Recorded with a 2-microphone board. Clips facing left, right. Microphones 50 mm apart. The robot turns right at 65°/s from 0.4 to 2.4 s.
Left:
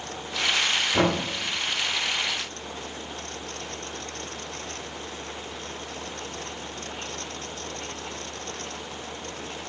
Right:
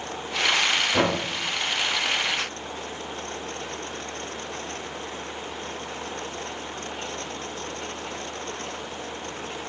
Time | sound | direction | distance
0.9 | knocking | 10° right (ahead or behind) | 0.7 m